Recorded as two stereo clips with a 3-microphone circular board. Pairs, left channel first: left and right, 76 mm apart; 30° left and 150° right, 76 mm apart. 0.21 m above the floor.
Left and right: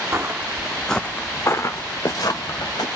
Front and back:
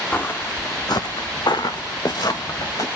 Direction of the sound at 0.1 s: 40° right.